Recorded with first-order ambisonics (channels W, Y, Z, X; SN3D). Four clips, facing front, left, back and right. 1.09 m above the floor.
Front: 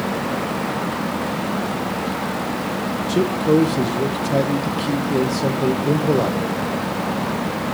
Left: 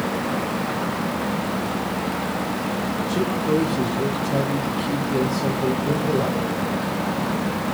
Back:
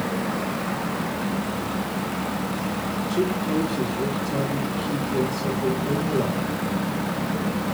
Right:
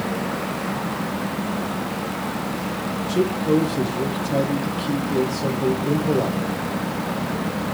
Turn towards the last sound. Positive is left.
turn(degrees=-10)